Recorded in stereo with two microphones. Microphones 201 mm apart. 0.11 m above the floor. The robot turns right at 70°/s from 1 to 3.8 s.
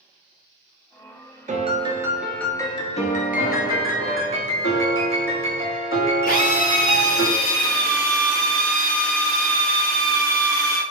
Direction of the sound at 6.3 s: 45° left (ahead or behind).